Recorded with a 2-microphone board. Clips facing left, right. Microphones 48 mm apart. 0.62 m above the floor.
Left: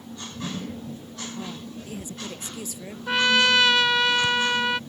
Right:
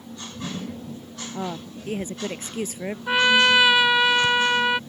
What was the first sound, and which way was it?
A woman speaking, 50° right (ahead or behind).